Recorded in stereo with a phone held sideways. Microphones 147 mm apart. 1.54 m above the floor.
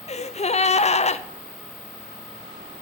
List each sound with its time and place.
0.1 s a gasp: 50° left (ahead or behind), 0.6 m